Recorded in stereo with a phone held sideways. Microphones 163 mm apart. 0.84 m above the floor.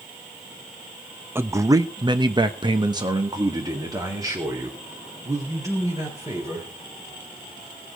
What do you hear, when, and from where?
1.4 s a man speaking: 15° right (ahead or behind), 0.9 m; by 6.7 s 20° right (ahead or behind), 4 m